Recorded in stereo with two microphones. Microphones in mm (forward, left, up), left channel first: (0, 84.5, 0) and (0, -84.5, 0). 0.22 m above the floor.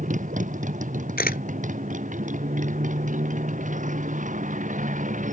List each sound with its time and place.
0.0 s a motorcycle: 50° right (ahead or behind)
1.2 s a camera shutter: 70° left (ahead or behind)